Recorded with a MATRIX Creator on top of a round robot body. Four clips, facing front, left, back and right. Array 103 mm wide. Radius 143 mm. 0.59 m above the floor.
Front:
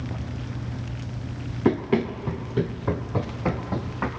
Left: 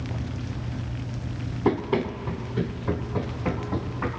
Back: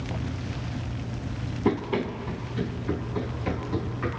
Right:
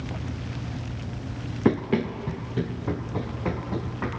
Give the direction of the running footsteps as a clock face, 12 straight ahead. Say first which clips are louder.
Right 1 dB, front 4 dB; 2 o'clock.